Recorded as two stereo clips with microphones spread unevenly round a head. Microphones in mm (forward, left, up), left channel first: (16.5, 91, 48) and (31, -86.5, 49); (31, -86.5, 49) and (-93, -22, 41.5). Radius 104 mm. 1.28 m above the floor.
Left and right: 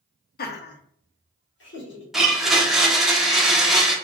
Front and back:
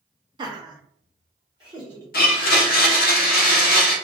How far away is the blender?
About 0.7 m.